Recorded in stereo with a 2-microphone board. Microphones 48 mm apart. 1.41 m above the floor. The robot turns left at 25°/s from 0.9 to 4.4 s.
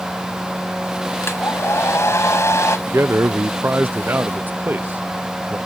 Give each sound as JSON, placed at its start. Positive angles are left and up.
{"t": 1.2, "sound": "a hair dryer", "azimuth_deg": 115}
{"t": 2.9, "sound": "a man speaking", "azimuth_deg": -90}